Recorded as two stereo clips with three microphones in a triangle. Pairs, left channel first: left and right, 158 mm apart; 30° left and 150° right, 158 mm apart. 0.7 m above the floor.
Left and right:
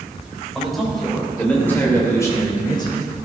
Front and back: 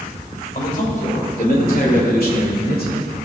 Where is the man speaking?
Straight ahead, 2.5 m; by 3.2 s 35° left, 2 m.